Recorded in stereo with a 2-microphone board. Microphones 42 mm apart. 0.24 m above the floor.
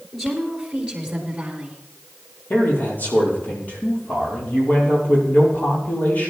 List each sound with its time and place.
0.1 s a woman speaking: centre (ahead or behind), 4.5 m; by 1.8 s 25° right (ahead or behind), 4.5 m
2.5 s a man speaking: 45° left (ahead or behind), 5.5 m